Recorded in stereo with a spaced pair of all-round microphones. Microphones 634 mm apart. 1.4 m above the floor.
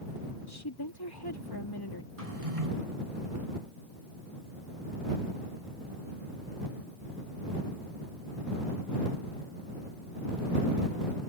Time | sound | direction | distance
0.5 | a woman speaking | 35° left (ahead or behind) | ?
2.2 | a drawer | 65° right (ahead or behind) | ?